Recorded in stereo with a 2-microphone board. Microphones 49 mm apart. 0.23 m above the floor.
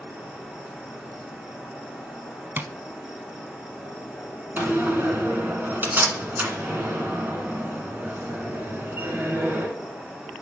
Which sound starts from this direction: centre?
An insect, at 0.0 s.